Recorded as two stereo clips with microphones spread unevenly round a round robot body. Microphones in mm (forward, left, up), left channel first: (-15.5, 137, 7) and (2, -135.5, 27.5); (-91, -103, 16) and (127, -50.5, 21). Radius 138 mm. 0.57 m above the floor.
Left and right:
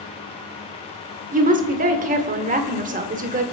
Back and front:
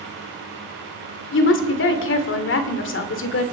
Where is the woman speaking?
150° right, 1.9 m.